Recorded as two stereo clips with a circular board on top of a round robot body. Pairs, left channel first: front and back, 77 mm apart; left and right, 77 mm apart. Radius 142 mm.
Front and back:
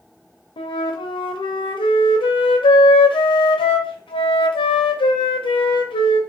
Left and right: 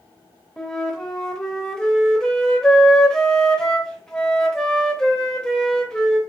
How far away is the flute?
About 0.6 m.